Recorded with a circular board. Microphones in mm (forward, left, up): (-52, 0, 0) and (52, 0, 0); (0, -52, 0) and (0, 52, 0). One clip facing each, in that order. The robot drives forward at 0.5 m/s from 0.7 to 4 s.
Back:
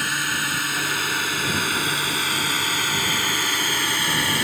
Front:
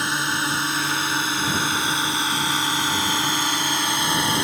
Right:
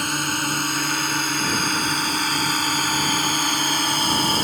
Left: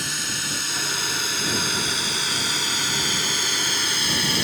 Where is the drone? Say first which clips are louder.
Front 2 dB, right 8 dB; 65° right; by 4.5 s 60° right.